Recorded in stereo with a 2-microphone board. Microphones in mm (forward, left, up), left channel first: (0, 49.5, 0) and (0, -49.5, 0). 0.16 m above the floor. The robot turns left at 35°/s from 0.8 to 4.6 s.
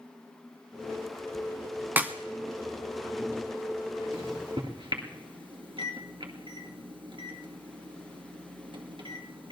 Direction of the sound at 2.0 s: 20° right (ahead or behind).